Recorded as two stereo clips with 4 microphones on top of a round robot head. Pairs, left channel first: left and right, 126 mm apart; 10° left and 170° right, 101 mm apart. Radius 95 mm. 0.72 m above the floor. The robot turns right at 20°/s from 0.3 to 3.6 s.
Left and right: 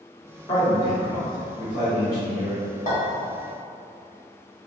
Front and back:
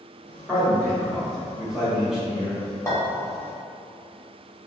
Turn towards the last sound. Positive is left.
turn(degrees=85)